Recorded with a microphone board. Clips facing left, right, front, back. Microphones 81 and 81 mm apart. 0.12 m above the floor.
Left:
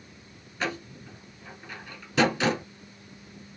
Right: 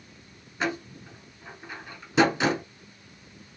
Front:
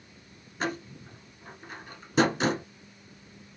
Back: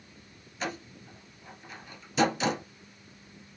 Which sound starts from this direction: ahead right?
A door slam, at 0.6 s.